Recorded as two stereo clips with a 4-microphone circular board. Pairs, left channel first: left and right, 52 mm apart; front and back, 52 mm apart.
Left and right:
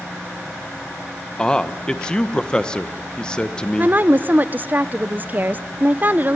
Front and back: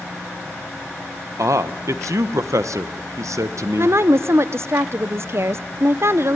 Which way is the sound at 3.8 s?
145° right.